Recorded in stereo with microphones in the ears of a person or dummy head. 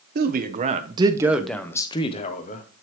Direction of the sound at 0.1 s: 50° right (ahead or behind).